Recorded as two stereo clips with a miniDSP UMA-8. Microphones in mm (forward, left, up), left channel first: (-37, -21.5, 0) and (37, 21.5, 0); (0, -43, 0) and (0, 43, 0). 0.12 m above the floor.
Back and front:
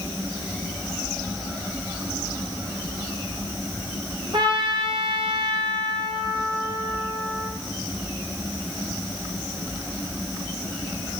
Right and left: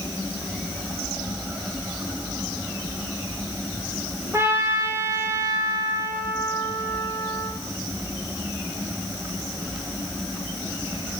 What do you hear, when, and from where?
4.3 s a trumpet: 35° left, 3.5 m